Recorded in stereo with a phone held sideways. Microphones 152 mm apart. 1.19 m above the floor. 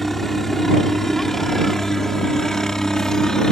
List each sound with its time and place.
0.0 s a helicopter: centre (ahead or behind); by 3.5 s 5° left (ahead or behind)